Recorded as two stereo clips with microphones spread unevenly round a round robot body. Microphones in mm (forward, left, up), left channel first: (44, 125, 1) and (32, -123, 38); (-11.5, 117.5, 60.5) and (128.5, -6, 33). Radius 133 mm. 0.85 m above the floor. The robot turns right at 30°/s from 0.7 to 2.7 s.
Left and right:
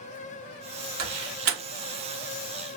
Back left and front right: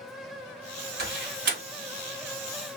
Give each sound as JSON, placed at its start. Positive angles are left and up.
{"t": 1.0, "sound": "a door slam", "azimuth_deg": -70, "distance_m": 0.9}